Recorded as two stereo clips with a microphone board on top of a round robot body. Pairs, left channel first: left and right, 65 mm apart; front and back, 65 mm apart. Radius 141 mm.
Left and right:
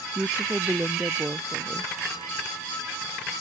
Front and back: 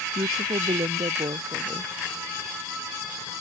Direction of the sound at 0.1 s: 170° right.